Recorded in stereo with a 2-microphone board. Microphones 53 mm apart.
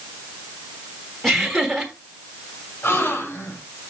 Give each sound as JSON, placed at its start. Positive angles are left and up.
{"t": 1.2, "sound": "laughter", "side_deg": 5, "distance_m": 1.3}
{"t": 2.8, "sound": "a gasp", "side_deg": 50, "distance_m": 3.5}